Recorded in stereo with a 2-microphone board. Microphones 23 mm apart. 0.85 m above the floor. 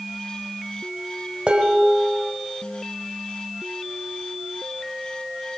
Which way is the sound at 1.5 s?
50° right (ahead or behind).